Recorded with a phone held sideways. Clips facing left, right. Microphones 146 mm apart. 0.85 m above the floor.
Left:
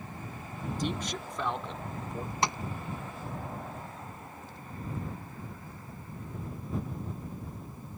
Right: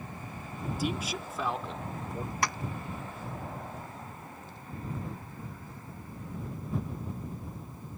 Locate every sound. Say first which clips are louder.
0.8 s a man speaking: right 1 dB; 10° right (ahead or behind); by 2.3 s centre (ahead or behind)
2.4 s tapping: left 2 dB; 20° left (ahead or behind)